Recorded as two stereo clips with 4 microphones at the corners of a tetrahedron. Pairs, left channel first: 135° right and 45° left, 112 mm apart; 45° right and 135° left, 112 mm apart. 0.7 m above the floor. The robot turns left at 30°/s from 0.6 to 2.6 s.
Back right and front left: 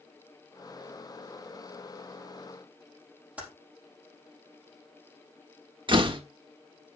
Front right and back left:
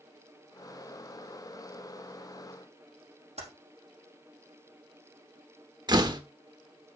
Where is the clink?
No clink in this recording.